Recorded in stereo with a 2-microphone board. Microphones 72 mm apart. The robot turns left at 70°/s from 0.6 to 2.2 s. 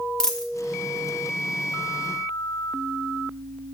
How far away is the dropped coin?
About 0.7 m.